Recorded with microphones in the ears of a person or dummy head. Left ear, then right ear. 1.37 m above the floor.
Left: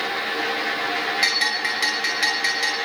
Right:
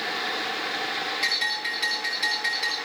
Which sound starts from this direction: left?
A bell, at 1.2 s.